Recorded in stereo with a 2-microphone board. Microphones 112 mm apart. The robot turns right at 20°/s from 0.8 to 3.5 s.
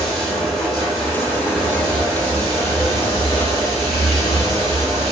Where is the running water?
Straight behind, 1.6 m; by 5.1 s 125° right, 1.6 m.